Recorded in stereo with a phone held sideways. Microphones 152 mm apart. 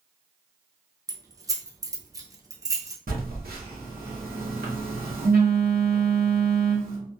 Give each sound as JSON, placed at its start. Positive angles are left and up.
{"t": 1.1, "sound": "keys jangling", "side_deg": -25, "distance_m": 0.5}
{"t": 3.1, "sound": "a phone buzzing", "side_deg": -80, "distance_m": 0.8}